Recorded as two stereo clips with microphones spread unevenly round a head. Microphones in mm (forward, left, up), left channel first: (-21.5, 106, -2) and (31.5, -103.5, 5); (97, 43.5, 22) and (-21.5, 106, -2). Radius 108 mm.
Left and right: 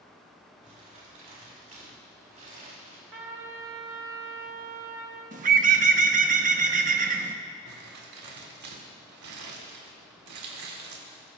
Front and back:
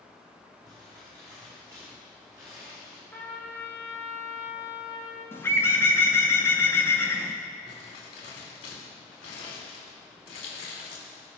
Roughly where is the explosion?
I don't hear an explosion.